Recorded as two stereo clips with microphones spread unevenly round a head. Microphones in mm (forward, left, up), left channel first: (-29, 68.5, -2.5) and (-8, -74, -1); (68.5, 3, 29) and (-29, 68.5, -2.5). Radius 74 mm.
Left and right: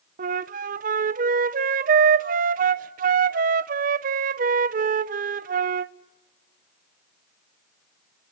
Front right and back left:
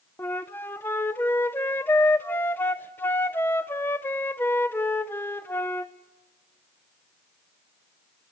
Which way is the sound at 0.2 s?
105° right.